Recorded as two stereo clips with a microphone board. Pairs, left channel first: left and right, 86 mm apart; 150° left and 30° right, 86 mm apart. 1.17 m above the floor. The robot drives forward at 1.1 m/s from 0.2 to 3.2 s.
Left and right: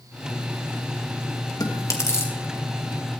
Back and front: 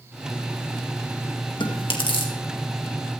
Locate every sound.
1.6 s chewing: 135° left, 1.6 m; by 2.3 s 150° left, 2 m